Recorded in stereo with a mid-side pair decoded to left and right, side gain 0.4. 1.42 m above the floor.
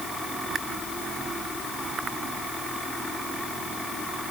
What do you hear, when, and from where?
Only background noise.